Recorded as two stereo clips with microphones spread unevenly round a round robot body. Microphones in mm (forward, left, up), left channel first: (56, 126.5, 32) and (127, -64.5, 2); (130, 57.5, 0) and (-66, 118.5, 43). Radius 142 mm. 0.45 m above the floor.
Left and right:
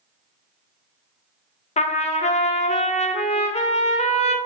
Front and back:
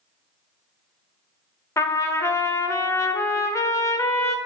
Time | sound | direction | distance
1.8 | a trumpet | 50° left | 0.8 m